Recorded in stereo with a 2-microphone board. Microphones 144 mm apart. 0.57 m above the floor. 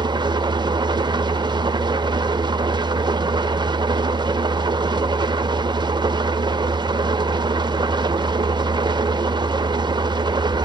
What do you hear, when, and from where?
0.0 s an engine running: 35° right (ahead or behind), 0.8 m